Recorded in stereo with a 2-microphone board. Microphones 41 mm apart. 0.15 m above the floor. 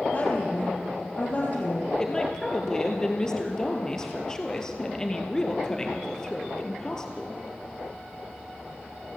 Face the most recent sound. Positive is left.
turn(degrees=15)  # may be behind; listen again after turning